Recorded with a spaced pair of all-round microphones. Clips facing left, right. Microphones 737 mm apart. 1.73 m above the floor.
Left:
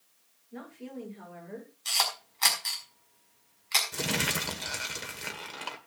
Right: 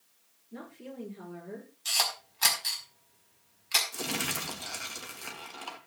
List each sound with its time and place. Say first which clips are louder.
0.5 s a woman speaking: left 2 dB; 60° right (ahead or behind), 6 m
1.9 s a camera shutter: left 1 dB; 60° right (ahead or behind), 5 m
3.9 s crumpling: left 3 dB; 85° left, 1.8 m